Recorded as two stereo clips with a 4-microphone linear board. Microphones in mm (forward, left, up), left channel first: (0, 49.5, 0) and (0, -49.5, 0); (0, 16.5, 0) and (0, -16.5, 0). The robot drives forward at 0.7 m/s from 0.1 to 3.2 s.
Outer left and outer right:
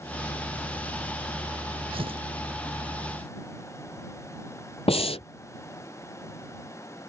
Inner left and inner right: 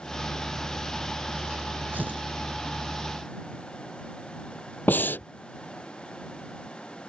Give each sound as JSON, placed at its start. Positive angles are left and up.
{"t": 1.9, "sound": "tearing paper", "side_deg": -65}
{"t": 4.9, "sound": "breathing", "side_deg": 75}